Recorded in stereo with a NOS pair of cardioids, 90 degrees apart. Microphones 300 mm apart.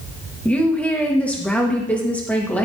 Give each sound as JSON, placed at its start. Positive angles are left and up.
{"t": 0.5, "sound": "a woman speaking", "azimuth_deg": 5, "distance_m": 1.8}